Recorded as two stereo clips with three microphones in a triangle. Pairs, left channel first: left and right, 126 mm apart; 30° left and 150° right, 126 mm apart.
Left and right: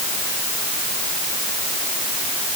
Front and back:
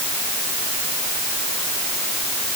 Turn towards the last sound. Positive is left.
No sound to turn to.